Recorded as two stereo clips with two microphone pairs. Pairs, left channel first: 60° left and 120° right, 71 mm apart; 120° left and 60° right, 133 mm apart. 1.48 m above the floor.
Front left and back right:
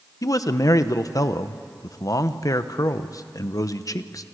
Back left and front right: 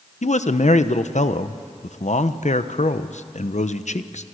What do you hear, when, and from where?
0.2 s a man speaking: 95° left, 1.0 m